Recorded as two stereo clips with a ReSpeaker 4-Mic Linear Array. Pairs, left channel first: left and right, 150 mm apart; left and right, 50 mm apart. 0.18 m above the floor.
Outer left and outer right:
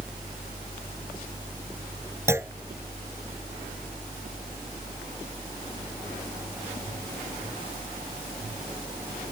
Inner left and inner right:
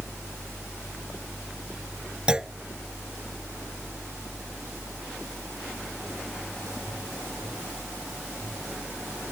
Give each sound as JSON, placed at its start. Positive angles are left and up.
{"t": 2.3, "sound": "a clunk", "side_deg": -15}